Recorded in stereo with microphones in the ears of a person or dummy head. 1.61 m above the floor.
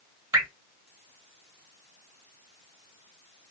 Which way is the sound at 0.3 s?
20° right (ahead or behind).